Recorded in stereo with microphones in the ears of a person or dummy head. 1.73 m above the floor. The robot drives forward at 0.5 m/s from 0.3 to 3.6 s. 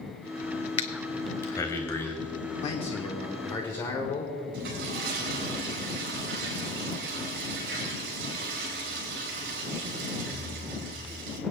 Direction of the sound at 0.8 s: 30° left (ahead or behind).